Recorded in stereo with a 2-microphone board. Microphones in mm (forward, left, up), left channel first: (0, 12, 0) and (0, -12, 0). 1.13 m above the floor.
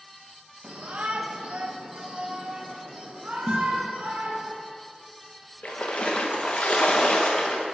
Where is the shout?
65° right (ahead or behind), 1.1 m; by 4.5 s 80° right, 3.5 m.